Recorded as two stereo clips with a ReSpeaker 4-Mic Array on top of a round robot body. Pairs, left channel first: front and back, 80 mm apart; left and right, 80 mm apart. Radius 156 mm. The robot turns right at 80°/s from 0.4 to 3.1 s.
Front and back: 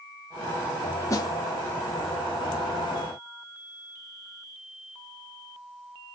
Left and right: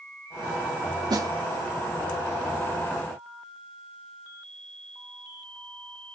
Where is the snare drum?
50° right, 1.2 m; by 1.3 s 35° right, 1.2 m.